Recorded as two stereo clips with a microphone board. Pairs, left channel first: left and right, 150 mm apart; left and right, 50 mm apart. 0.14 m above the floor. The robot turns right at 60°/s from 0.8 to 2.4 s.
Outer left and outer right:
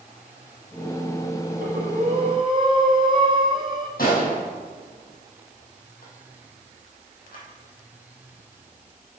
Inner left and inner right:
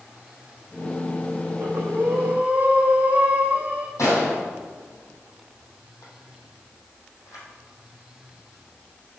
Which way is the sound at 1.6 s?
80° right.